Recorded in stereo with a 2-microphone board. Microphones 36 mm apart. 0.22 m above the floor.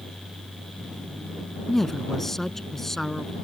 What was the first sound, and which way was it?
A woman speaking, 10° left (ahead or behind).